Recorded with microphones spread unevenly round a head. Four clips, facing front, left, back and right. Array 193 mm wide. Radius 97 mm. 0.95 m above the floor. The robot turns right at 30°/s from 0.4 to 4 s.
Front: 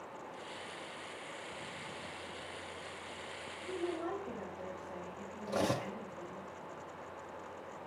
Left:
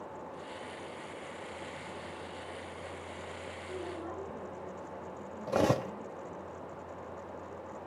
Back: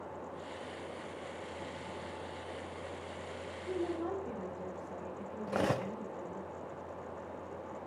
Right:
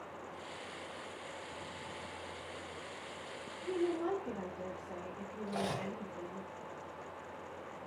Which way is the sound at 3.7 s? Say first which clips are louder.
Right 8 dB, back 2 dB; 120° right.